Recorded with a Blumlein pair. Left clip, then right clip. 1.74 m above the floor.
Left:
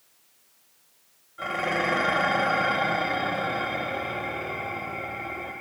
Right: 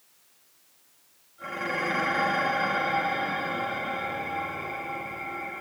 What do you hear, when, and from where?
1.4 s dishes clattering: 55° left, 2.5 m